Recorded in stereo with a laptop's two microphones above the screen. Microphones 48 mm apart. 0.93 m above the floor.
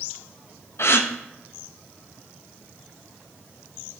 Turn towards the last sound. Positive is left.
turn(degrees=55)  # may be behind; listen again after turning